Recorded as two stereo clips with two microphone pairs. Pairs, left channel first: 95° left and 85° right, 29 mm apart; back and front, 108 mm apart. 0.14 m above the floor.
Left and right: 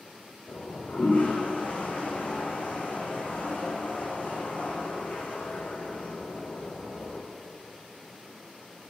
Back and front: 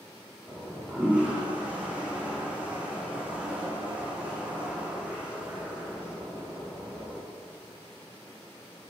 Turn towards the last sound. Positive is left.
turn(degrees=80)